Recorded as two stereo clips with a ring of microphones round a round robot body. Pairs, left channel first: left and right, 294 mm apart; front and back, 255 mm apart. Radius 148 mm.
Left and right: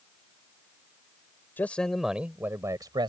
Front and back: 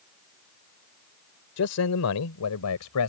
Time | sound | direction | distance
1.6 | a man speaking | 5° left | ?